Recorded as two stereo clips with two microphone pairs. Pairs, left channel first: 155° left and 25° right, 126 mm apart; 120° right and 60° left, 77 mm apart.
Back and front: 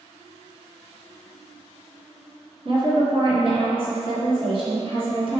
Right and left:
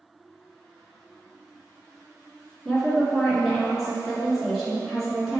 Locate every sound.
2.6 s a woman speaking: 35° right, 2.0 m